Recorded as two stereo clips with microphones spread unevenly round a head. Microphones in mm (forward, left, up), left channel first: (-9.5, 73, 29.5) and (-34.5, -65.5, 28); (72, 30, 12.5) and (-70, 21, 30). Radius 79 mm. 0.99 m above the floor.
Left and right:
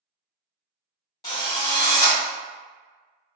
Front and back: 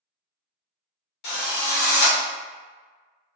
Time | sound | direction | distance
1.2 | a drill | 15° left | 1.2 m